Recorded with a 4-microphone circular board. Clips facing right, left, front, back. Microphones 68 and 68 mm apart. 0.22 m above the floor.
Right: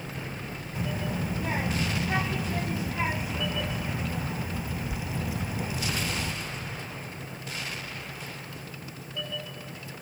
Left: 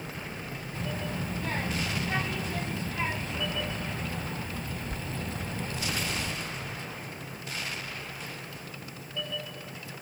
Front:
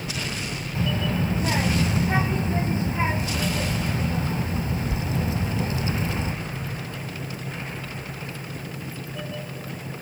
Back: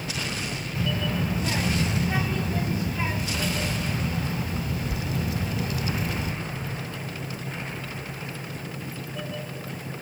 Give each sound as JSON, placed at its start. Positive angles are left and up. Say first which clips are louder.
{"t": 0.8, "sound": "a child speaking", "louder": "right 3 dB, front 2 dB", "azimuth_deg": -20, "distance_m": 1.1}